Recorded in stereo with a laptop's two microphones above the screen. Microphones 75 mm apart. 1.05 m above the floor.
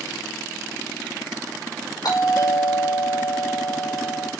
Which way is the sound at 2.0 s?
60° left (ahead or behind).